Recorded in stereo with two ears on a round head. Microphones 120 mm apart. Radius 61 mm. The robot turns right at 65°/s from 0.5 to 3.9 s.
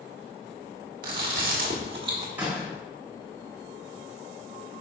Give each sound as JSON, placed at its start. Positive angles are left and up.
{"t": 1.0, "sound": "chewing", "azimuth_deg": -105, "distance_m": 1.6}
{"t": 2.4, "sound": "a door slam", "side_deg": -15, "distance_m": 2.5}